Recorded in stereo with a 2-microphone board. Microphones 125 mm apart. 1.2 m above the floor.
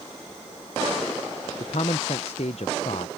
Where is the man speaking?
60° left (ahead or behind).